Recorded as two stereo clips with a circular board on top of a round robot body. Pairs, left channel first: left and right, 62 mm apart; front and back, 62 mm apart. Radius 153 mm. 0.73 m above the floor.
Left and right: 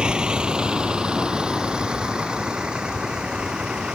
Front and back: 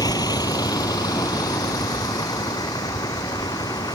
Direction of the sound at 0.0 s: 10° right.